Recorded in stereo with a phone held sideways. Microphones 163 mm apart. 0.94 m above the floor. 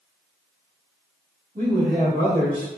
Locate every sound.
1.6 s a man speaking: 60° right (ahead or behind), 1.6 m; by 2.7 s 30° right (ahead or behind), 2.5 m